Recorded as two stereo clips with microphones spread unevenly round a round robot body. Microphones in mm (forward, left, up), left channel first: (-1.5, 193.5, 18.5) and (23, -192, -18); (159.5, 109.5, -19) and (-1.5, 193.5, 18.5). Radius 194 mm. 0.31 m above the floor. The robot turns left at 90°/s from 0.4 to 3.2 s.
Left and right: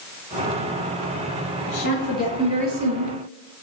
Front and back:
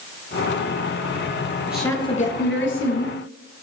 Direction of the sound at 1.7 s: 70° left.